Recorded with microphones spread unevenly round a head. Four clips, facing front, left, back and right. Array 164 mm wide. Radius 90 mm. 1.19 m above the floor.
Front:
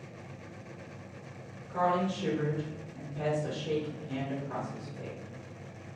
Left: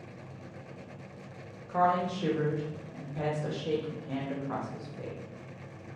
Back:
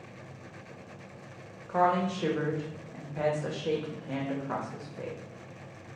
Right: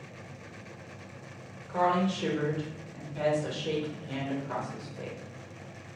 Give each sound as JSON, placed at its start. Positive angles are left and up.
{"t": 1.7, "sound": "a woman speaking", "azimuth_deg": -175, "distance_m": 1.0}